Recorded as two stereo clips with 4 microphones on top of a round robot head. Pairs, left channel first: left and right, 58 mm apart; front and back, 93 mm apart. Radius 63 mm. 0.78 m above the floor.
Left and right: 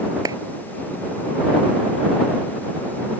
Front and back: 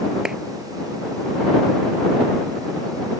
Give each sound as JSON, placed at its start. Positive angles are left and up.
{"t": 0.2, "sound": "a clap", "azimuth_deg": -95}